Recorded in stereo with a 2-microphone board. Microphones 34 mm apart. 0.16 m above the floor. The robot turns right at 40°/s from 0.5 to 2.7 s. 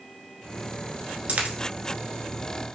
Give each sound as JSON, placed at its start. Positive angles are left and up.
{"t": 1.3, "sound": "a dropped coin", "side_deg": -50, "distance_m": 0.8}